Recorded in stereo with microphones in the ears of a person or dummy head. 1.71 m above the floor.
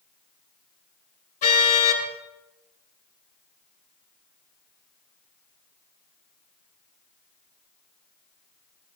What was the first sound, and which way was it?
A car horn, 45° left (ahead or behind).